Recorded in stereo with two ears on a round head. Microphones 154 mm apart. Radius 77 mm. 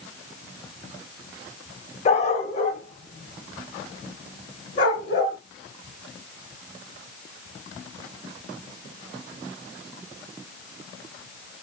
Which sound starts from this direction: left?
A dog barking, at 2.0 s.